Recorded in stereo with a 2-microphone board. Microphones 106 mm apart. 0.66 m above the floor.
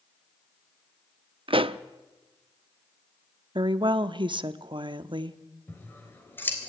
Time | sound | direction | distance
1.5 | a pop | 55° right (ahead or behind) | 0.6 m
3.5 | a woman speaking | 50° right (ahead or behind) | 0.8 m
5.7 | scissors | 20° left (ahead or behind) | 3.5 m